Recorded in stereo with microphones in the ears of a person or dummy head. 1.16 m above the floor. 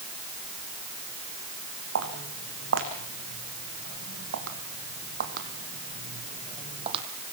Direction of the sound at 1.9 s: 75° right (ahead or behind).